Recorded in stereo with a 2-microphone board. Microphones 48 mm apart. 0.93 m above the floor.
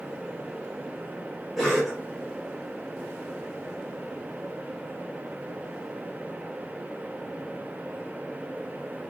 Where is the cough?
5° right (ahead or behind), 3 m.